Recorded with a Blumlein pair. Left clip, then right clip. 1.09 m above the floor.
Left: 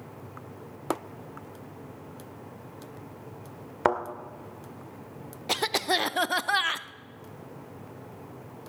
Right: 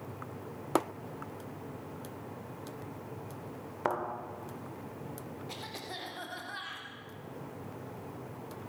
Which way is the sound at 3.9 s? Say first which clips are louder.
Left 7 dB; 65° left.